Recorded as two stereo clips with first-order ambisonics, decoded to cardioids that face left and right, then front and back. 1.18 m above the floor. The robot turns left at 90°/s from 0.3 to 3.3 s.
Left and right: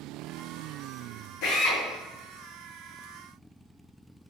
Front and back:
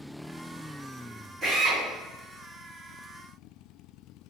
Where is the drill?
100° left, 1.0 m; by 1.8 s 65° left, 1.0 m.